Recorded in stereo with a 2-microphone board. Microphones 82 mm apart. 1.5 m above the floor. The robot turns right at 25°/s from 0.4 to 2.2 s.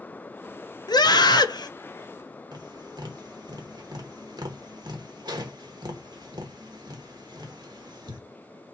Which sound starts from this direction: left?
A scream, at 0.9 s.